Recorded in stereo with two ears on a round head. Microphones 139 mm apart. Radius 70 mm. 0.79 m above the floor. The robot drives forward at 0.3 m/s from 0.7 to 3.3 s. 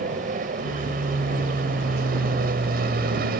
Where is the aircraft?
55° right (ahead or behind); by 3.4 s 65° right (ahead or behind).